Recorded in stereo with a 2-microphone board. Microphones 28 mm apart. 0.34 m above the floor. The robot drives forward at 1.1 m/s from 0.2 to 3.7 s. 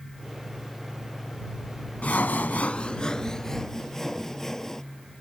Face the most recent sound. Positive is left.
turn(degrees=15)  # may be behind; listen again after turning